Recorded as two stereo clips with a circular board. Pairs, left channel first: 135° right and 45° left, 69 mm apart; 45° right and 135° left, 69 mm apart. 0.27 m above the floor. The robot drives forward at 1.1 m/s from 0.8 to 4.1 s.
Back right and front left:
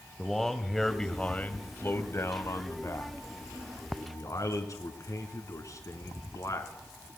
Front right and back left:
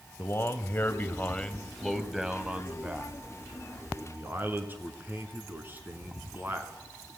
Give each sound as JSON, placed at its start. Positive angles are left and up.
{"t": 0.2, "sound": "a man speaking", "azimuth_deg": -55, "distance_m": 1.6}